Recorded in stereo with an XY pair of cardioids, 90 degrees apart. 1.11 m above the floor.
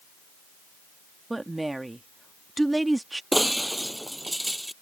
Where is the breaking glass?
10° right.